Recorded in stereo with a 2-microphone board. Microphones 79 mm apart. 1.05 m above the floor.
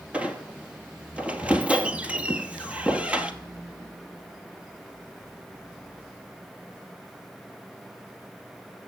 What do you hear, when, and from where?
0.1 s a squeak: 15° right (ahead or behind), 1.1 m